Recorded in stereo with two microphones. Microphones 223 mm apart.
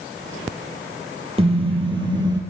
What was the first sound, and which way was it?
A car horn, 25° right (ahead or behind).